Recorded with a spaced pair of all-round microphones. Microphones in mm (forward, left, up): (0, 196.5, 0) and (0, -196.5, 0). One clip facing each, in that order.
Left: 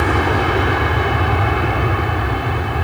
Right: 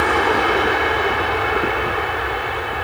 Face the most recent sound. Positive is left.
turn(degrees=60)  # may be behind; listen again after turning